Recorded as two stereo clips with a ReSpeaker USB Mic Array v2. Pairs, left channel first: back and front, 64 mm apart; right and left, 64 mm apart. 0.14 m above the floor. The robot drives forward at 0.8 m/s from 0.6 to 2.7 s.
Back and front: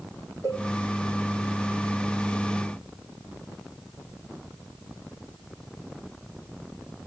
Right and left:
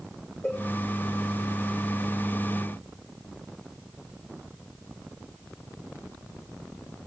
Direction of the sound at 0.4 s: 40° right.